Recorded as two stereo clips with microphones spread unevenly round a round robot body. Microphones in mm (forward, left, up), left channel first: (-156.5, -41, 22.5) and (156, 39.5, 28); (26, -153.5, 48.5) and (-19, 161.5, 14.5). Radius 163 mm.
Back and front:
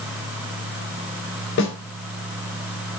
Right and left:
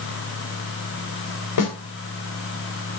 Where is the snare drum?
110° right, 3.5 m.